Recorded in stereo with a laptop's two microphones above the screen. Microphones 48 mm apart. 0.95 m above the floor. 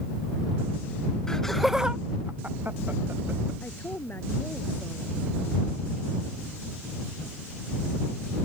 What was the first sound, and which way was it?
Laughter, 10° left (ahead or behind).